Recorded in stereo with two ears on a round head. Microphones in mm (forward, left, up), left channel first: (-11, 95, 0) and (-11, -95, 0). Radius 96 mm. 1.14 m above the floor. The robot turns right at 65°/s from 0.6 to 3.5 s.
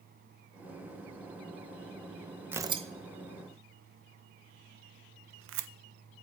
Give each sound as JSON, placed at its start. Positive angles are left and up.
{"t": 2.5, "sound": "tearing paper", "side_deg": -10, "distance_m": 0.7}